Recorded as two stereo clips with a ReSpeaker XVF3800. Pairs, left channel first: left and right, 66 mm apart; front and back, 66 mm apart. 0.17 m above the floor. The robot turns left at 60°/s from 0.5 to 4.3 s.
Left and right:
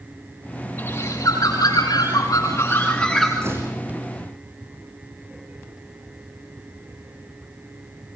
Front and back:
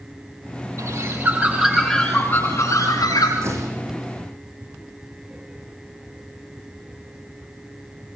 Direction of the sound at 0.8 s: 145° left.